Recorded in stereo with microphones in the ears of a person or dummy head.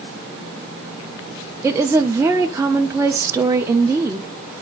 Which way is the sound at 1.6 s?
20° right (ahead or behind).